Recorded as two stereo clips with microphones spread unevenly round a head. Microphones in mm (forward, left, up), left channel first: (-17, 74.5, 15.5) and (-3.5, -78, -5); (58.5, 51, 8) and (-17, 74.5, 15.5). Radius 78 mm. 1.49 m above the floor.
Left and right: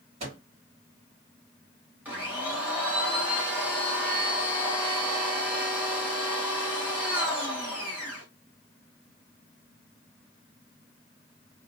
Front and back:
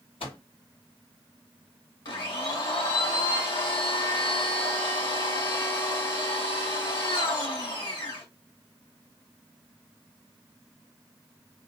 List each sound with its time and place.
0.2 s a microwave: 30° right, 2.5 m
2.0 s a blender: 5° right, 2 m